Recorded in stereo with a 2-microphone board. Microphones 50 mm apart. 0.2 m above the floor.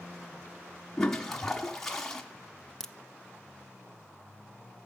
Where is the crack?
10° left (ahead or behind), 0.5 m.